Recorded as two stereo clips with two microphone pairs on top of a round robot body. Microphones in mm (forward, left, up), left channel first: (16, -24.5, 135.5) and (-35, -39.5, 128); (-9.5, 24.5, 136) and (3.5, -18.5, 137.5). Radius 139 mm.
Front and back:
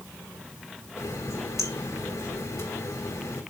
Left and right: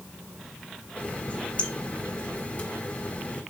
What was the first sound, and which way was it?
A running tap, 45° left.